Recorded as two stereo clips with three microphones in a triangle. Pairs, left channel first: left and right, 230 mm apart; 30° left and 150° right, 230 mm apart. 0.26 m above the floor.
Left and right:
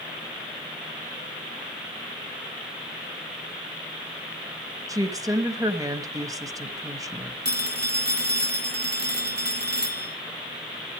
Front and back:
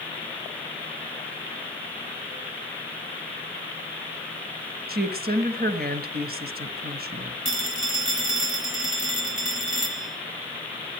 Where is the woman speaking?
160° right, 1.3 m.